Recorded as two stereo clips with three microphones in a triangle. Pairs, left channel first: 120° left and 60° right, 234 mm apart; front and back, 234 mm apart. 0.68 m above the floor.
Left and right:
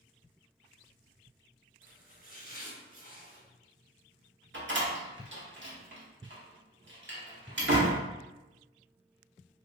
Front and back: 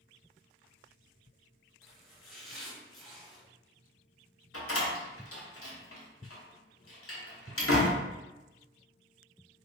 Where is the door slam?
20° right, 0.9 m.